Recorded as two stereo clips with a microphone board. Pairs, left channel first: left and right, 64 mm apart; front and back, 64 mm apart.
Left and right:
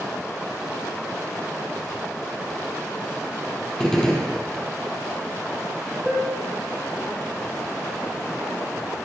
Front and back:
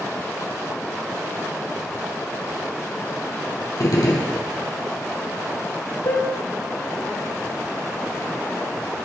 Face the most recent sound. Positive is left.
turn(degrees=0)